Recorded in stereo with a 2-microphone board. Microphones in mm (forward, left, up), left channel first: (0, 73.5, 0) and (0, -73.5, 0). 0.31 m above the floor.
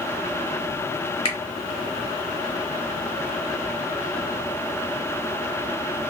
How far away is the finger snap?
About 0.9 m.